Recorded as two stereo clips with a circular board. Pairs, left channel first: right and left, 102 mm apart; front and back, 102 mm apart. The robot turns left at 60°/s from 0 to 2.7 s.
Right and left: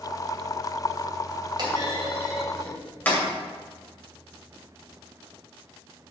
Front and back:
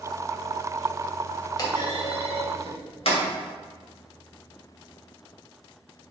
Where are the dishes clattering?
I don't hear dishes clattering.